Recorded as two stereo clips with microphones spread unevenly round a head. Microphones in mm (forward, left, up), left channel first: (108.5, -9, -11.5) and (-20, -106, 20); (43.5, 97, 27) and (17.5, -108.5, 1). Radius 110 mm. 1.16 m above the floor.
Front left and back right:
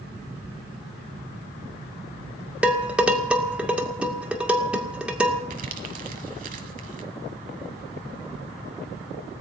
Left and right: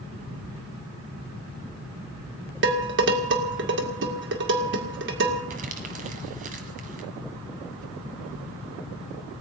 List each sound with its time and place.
2.6 s dishes clattering: 60° right, 2 m
5.5 s crumpling: 155° right, 1.6 m